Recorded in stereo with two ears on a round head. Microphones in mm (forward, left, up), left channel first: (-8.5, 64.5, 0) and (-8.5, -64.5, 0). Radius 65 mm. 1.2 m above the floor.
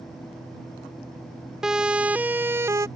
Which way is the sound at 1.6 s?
5° right (ahead or behind).